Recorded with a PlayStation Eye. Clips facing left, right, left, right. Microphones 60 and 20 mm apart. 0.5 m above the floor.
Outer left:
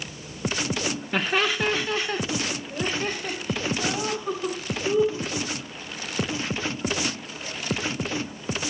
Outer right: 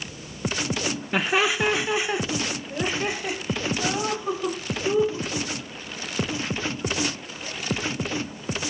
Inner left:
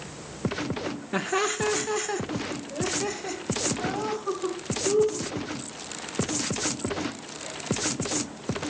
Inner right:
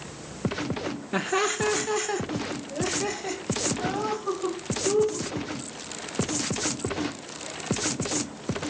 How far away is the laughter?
About 0.8 m.